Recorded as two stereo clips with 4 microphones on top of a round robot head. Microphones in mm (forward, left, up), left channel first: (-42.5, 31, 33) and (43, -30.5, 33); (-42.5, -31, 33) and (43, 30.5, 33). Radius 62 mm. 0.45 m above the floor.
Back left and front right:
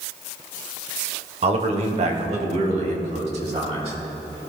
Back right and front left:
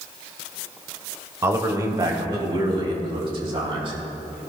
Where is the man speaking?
25° right, 1.8 m; by 4.4 s 5° right, 4.5 m.